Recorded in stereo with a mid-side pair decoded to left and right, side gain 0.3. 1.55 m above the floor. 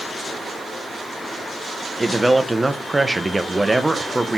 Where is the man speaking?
20° right, 1.2 m.